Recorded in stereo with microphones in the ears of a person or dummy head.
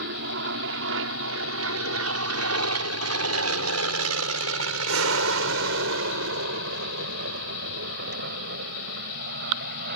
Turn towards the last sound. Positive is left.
turn(degrees=-50)  # may be behind; listen again after turning